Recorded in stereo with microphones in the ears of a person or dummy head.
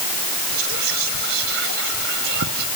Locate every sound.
0.5 s whispering: 50° right (ahead or behind), 0.7 m